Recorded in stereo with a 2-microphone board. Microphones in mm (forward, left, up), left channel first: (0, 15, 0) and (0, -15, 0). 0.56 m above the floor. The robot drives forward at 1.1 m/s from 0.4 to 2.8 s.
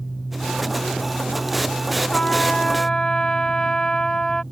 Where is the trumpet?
40° left (ahead or behind); by 4.4 s 30° left (ahead or behind).